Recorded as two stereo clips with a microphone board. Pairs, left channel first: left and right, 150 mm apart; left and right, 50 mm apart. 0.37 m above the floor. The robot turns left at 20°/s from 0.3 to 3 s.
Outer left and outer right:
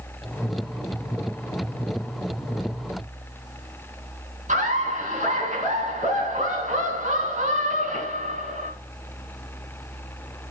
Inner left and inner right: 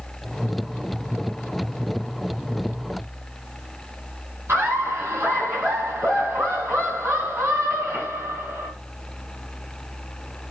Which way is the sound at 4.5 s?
55° right (ahead or behind).